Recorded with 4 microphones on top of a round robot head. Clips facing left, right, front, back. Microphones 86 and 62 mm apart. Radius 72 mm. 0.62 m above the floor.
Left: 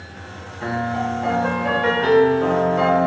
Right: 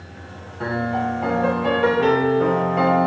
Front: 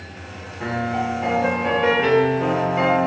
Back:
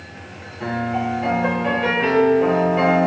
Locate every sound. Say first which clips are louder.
0.6 s a piano: even, back 1 dB; 85° right, 2.5 m